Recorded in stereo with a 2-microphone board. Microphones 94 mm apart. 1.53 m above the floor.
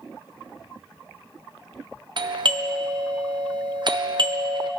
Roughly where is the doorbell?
Right.